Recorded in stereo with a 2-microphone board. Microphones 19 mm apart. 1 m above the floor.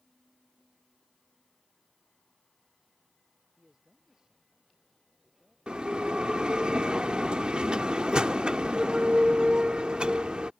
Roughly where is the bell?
Right.